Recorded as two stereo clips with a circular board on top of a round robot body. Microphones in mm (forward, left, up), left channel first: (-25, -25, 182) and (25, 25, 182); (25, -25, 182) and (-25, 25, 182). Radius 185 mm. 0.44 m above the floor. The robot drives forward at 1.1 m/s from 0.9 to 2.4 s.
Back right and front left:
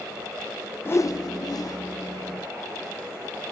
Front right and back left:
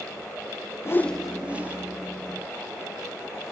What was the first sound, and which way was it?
A whoosh, 85° right.